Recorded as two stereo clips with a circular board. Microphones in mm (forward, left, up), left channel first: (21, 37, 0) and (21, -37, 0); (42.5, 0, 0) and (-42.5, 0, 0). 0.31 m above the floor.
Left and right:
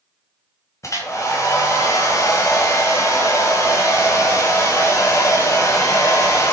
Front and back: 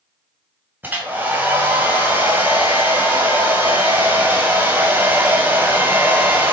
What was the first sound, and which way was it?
A hair dryer, 120° left.